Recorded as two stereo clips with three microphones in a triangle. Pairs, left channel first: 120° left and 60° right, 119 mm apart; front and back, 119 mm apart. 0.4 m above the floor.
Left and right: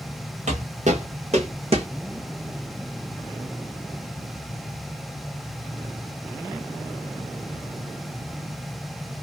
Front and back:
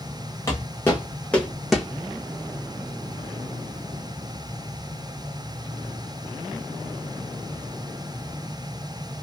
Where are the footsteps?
65° right, 1.5 m; by 1.9 s 95° right, 1.1 m.